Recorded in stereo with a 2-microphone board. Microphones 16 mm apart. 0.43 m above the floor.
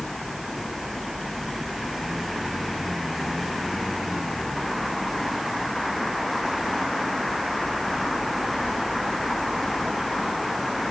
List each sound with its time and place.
Only background noise.